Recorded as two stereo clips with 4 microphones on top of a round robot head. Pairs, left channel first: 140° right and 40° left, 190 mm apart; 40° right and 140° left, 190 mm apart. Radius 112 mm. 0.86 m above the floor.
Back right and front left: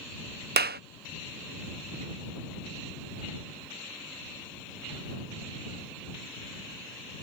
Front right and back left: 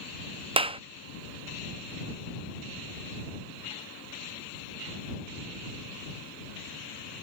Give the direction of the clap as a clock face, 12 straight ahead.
9 o'clock.